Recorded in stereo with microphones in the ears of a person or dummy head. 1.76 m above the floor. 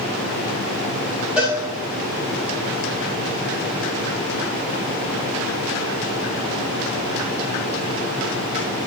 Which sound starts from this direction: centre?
A cowbell, at 1.4 s.